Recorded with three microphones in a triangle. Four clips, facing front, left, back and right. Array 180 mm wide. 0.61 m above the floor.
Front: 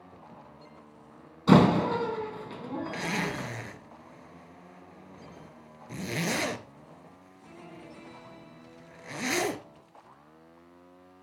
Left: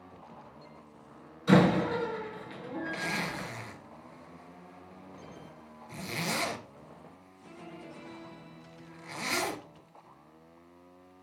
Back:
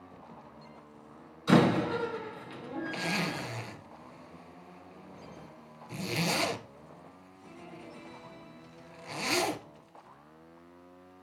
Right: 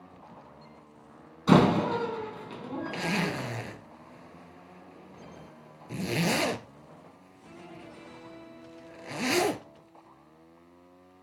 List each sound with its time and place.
1.5 s a door slam: 30° right, 4 m
2.9 s a zipper: 70° right, 2.5 m